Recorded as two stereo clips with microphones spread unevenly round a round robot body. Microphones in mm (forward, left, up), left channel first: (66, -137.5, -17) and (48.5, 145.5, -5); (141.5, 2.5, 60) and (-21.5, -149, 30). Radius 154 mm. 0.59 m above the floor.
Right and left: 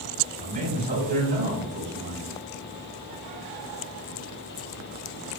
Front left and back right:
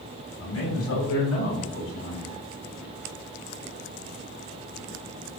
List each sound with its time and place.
0.4 s a man speaking: 30° left, 5 m; by 2.3 s 50° left, 5.5 m